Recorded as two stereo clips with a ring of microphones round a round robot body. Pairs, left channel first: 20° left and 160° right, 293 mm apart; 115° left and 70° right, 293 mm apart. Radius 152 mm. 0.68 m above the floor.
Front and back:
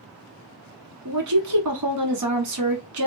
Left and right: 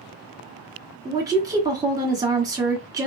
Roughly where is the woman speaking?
Behind right.